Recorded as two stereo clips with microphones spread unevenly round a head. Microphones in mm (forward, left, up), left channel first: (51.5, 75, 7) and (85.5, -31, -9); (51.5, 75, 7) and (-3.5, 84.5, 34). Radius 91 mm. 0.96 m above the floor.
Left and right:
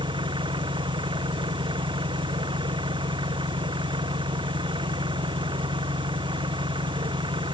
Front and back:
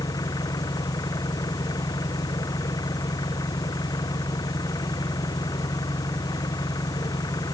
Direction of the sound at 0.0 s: 30° right.